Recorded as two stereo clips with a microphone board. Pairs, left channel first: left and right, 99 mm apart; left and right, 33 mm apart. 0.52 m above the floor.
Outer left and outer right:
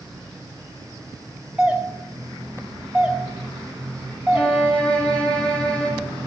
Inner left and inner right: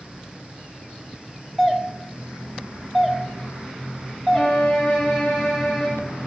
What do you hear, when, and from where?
1.6 s a doorbell: 10° right (ahead or behind), 1.3 m
4.3 s a violin: 10° left (ahead or behind), 4 m